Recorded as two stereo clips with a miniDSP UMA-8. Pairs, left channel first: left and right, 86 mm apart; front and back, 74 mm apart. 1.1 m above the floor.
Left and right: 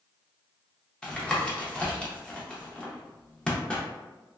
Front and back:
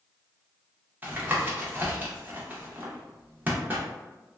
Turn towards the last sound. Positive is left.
turn(degrees=155)